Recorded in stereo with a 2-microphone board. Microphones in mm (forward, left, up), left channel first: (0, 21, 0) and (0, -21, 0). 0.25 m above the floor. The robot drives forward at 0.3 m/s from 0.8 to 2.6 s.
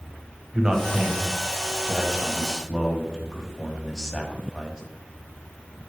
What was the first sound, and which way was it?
A man speaking, 15° right (ahead or behind).